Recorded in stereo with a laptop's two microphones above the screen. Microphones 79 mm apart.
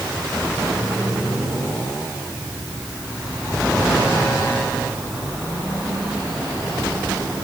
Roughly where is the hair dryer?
No hair dryer in this recording.